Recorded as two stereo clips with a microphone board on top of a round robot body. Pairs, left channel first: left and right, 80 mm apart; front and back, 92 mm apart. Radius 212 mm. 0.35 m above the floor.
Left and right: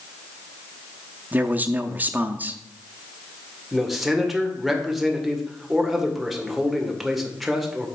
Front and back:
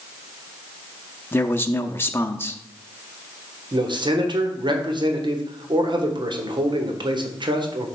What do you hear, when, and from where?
1.3 s a man speaking: 45° right, 0.9 m
3.7 s a man speaking: straight behind, 1.8 m